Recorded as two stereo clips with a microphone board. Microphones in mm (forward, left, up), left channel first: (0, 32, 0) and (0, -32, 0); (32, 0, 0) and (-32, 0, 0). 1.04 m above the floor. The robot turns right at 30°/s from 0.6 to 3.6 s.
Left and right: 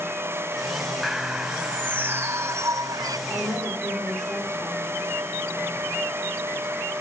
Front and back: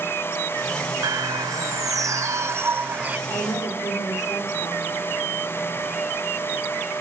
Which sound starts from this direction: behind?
A bird, at 1.0 s.